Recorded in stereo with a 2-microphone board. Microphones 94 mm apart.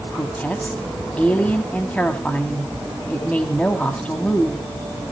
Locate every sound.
0.1 s a woman speaking: 15° left (ahead or behind), 1.5 m